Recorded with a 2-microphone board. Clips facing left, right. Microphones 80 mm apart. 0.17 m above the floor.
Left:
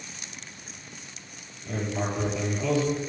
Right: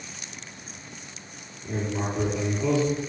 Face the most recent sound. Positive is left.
turn(degrees=-20)  # may be behind; listen again after turning